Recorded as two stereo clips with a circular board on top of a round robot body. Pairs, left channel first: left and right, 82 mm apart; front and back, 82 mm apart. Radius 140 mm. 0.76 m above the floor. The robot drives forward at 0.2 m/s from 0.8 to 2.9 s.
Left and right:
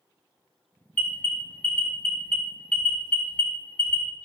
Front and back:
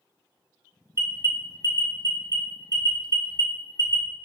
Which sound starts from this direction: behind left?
An alarm, at 0.9 s.